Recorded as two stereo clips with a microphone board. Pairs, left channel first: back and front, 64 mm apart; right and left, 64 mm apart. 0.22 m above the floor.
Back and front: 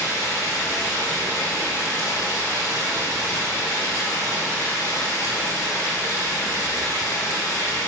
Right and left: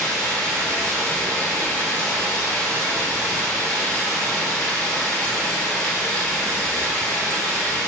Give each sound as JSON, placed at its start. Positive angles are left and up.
{"t": 0.0, "sound": "running water", "azimuth_deg": -160, "distance_m": 1.0}